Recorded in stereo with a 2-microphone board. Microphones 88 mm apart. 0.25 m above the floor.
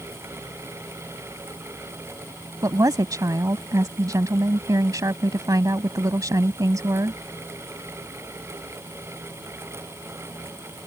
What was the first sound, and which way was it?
A woman speaking, 45° right (ahead or behind).